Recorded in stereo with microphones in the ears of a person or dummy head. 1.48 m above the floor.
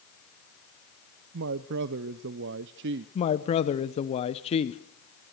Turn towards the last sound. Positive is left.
turn(degrees=35)  # may be behind; listen again after turning